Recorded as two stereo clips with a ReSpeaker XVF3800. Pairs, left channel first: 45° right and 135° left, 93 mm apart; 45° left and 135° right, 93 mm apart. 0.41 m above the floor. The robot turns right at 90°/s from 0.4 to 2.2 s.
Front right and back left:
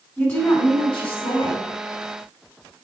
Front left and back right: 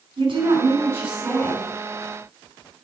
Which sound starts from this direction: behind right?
A woman speaking, at 0.2 s.